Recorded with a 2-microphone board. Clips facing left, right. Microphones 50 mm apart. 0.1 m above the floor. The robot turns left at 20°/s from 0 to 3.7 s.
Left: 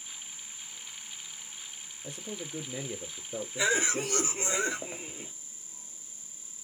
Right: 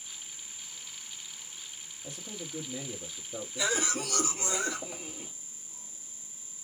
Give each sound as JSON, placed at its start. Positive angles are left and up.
{"t": 2.0, "sound": "a man speaking", "azimuth_deg": 155, "distance_m": 1.6}
{"t": 3.6, "sound": "a cough", "side_deg": 30, "distance_m": 1.5}